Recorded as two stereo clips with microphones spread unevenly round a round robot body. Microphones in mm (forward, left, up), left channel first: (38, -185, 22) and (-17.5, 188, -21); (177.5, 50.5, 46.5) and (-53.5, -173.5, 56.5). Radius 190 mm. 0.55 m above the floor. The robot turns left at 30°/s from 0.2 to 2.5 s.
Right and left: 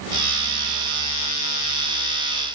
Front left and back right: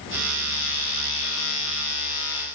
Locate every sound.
Only background noise.